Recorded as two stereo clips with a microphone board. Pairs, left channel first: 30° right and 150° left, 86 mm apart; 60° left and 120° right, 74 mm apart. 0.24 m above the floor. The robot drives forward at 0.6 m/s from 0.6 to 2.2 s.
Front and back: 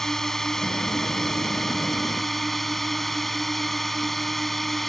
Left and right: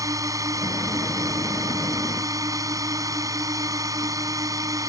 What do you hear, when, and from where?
0.0 s a drone: 115° right